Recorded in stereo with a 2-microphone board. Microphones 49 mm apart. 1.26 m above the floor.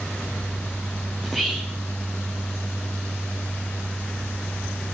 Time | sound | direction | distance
1.2 | whispering | centre (ahead or behind) | 0.8 m